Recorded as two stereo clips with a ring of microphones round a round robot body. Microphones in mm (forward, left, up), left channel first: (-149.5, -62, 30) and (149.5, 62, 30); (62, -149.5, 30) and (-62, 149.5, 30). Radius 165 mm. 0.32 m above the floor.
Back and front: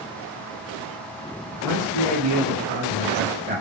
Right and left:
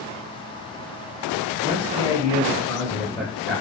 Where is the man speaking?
5° right, 1.9 m; by 3.6 s 30° left, 1.3 m.